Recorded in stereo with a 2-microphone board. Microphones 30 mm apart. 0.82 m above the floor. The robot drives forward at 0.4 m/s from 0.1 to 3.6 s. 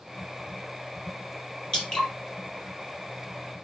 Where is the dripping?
20° left (ahead or behind), 4.5 m.